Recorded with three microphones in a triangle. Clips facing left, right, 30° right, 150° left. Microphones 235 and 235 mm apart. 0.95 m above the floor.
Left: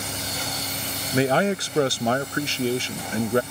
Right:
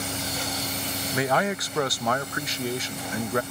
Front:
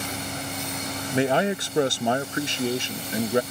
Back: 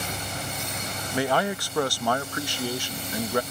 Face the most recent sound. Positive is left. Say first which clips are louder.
# left 5 dB, front 3 dB
turn(degrees=30)